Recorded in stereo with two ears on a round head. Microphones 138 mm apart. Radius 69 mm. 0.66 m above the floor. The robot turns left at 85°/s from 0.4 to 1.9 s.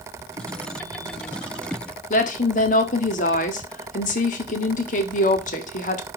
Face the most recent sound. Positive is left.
turn(degrees=55)  # may be behind; listen again after turning